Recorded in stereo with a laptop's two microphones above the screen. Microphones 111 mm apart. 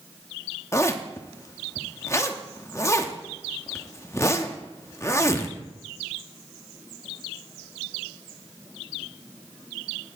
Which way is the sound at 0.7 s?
25° left (ahead or behind).